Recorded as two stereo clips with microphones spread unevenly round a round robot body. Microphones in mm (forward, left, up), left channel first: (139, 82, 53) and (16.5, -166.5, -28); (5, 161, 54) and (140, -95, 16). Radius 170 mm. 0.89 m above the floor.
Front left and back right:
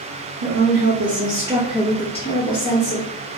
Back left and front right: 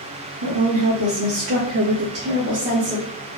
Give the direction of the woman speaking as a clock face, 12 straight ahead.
3 o'clock.